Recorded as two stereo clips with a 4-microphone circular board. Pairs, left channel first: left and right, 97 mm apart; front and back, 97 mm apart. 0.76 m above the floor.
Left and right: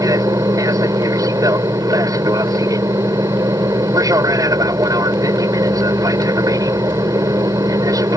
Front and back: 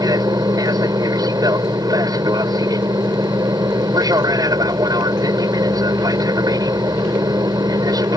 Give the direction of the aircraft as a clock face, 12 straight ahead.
5 o'clock.